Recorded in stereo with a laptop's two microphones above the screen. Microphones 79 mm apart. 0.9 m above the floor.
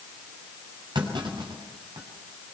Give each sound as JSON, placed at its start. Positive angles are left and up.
{"t": 0.9, "sound": "a clunk", "side_deg": -75, "distance_m": 7.0}